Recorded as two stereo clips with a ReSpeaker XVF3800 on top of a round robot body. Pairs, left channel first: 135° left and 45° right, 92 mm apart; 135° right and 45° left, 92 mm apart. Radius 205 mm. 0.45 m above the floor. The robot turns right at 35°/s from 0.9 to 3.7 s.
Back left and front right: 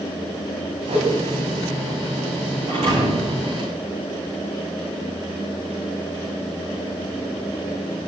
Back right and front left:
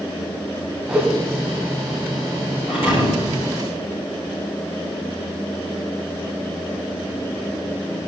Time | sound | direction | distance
0.9 | a whoosh | 35° right | 3 m
2.7 | a thud | 30° right | 8 m